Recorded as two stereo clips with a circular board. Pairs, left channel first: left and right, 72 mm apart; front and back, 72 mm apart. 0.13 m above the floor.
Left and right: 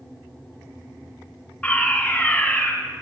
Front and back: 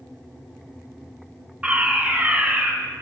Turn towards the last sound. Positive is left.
turn(degrees=135)